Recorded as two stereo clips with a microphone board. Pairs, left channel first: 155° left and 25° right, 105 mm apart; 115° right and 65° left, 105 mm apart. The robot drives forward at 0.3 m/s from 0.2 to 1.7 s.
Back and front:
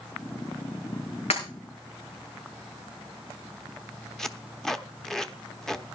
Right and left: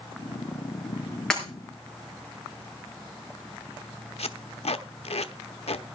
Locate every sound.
1.3 s breaking glass: 165° left, 5 m
4.2 s tape being pulled: 115° right, 0.8 m